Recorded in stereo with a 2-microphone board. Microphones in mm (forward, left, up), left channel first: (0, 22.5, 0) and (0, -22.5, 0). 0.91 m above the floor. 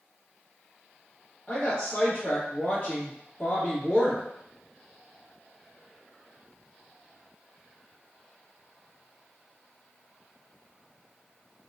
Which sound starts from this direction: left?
A woman speaking, at 1.5 s.